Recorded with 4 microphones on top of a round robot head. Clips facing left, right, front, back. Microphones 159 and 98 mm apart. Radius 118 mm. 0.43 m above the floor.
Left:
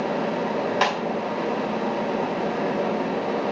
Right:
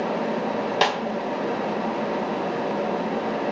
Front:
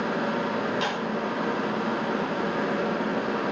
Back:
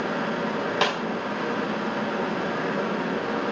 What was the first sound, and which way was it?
A snare drum, 150° right.